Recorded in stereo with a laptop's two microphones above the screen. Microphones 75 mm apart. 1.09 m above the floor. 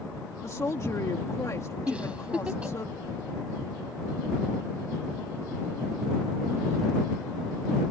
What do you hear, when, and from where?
0.4 s a woman speaking: 45° left (ahead or behind)
1.9 s a giggle: 15° right (ahead or behind)